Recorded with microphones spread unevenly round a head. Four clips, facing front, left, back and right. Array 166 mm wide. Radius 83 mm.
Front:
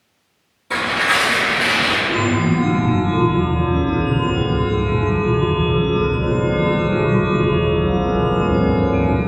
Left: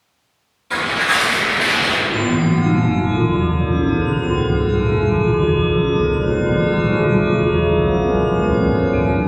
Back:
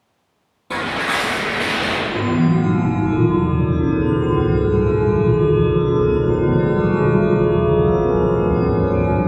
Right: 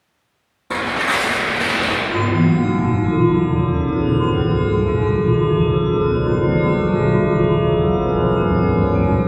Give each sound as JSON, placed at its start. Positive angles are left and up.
{"t": 0.7, "sound": "tearing paper", "azimuth_deg": -115, "distance_m": 0.6}
{"t": 2.1, "sound": "a chime", "azimuth_deg": 25, "distance_m": 1.5}